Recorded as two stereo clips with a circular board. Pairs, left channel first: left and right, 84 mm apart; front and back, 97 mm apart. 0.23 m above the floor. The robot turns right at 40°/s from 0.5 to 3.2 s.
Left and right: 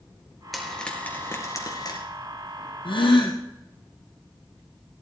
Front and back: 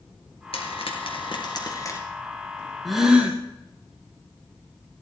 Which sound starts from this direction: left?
A gasp, at 2.9 s.